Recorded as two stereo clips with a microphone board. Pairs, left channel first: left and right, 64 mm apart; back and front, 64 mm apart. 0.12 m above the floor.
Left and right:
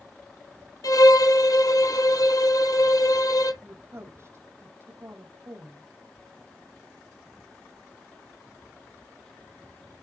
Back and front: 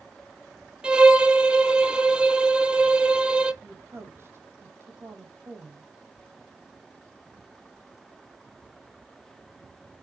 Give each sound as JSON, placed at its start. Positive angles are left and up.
{"t": 0.8, "sound": "a violin", "azimuth_deg": 75, "distance_m": 0.9}
{"t": 3.6, "sound": "a woman speaking", "azimuth_deg": -50, "distance_m": 3.5}